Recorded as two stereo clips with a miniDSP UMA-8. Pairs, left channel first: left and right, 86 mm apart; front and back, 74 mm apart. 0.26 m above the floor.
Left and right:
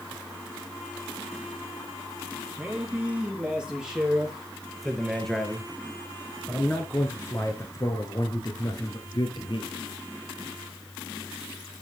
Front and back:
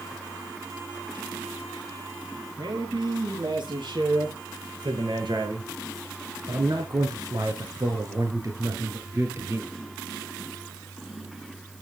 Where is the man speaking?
165° right, 6 m; by 9.7 s 120° left, 4.5 m.